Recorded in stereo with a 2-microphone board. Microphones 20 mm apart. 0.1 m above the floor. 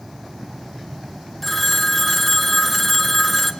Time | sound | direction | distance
1.4 | a phone ringing | 5° left (ahead or behind) | 1.1 m